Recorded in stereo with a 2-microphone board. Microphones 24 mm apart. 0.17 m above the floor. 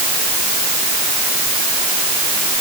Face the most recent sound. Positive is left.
No sound to turn to.